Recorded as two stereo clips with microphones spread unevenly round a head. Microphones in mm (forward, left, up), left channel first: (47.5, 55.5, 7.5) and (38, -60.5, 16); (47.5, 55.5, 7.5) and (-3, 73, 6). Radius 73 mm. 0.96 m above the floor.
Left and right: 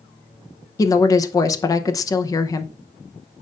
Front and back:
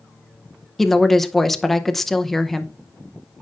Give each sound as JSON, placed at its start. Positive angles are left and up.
{"t": 0.8, "sound": "a woman speaking", "azimuth_deg": 65, "distance_m": 0.6}